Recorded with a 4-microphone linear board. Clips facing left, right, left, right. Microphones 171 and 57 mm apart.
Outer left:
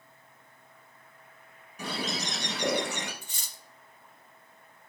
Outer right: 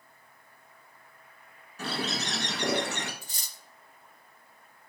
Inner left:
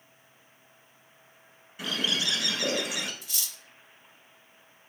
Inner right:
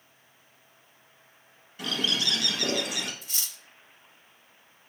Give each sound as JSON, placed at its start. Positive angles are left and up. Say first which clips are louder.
{"t": 1.8, "sound": "a bird", "louder": "outer right 1 dB, inner right 1 dB", "side_deg": 15, "distance_m": 1.0}
{"t": 3.2, "sound": "cutlery clinking", "louder": "even, even", "side_deg": -35, "distance_m": 0.6}